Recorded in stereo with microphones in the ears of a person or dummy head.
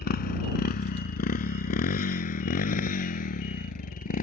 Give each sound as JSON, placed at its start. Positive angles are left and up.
{"t": 0.0, "sound": "a motorcycle", "side_deg": 40}